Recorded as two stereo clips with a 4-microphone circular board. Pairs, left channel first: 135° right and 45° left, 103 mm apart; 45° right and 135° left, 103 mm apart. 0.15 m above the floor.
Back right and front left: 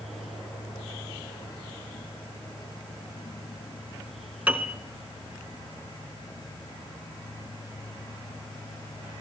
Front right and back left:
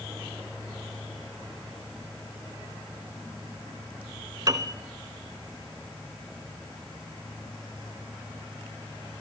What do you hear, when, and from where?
4.5 s a piano: 110° left, 0.8 m